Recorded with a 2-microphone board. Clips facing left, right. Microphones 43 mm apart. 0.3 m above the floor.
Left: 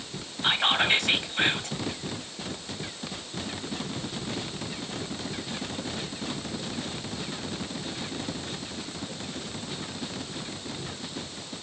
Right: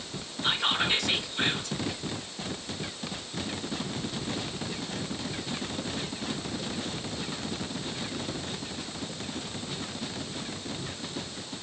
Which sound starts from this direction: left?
Whispering, at 0.4 s.